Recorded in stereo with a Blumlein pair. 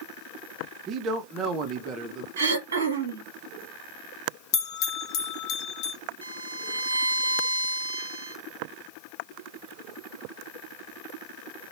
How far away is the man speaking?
About 0.7 m.